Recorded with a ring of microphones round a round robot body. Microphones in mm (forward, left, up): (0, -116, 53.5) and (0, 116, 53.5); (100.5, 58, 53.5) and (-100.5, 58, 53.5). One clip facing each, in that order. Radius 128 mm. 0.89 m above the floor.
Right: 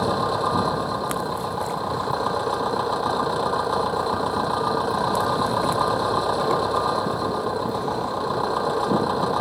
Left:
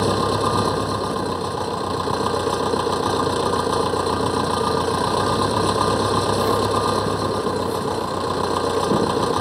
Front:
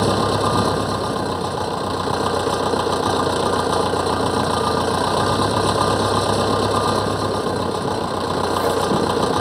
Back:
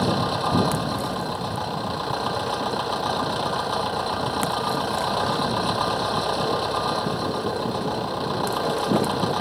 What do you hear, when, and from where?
0.0 s an engine running: 35° left